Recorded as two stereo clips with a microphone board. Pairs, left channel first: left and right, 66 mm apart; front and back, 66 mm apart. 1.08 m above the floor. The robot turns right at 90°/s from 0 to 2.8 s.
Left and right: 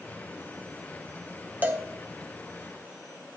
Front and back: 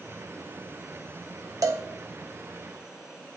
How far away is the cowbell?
About 1.2 m.